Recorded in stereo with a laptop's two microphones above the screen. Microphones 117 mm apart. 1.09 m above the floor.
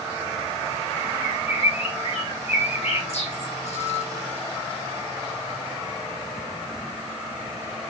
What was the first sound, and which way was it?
A bird, 65° left (ahead or behind).